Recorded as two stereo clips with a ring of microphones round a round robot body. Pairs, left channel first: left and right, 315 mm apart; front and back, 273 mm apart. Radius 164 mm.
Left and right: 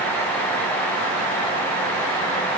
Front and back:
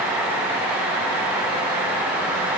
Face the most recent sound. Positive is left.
No sound to turn to.